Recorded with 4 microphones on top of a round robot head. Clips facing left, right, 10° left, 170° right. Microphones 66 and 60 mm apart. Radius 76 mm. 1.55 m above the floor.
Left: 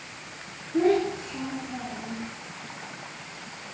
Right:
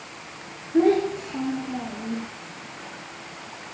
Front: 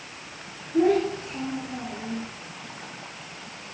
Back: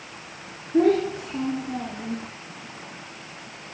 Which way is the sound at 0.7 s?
155° right.